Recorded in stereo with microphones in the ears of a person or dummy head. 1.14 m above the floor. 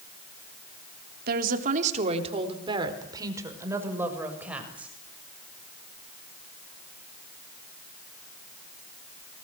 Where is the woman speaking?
55° right (ahead or behind), 3.5 m; by 4.9 s 5° right (ahead or behind), 7 m.